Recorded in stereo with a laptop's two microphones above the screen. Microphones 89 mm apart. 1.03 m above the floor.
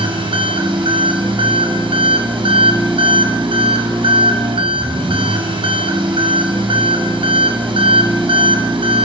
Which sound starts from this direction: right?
An engine running, at 0.0 s.